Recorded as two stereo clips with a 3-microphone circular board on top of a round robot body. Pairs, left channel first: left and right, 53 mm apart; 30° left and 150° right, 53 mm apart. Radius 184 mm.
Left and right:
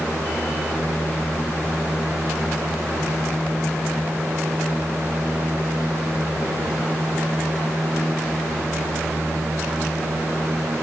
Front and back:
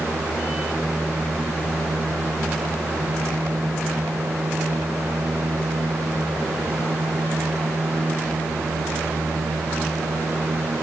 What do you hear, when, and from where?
Only background noise.